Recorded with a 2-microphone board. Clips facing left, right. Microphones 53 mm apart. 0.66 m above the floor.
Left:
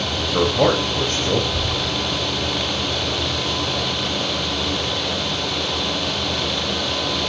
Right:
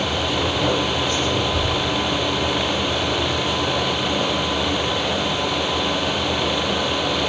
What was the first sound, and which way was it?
A man speaking, 55° left (ahead or behind).